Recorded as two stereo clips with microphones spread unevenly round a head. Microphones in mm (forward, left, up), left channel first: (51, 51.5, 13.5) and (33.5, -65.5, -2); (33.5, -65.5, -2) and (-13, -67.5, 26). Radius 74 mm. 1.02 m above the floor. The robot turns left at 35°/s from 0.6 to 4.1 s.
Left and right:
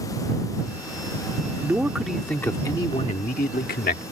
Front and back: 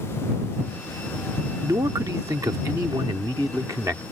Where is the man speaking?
175° right; by 4.0 s 105° left.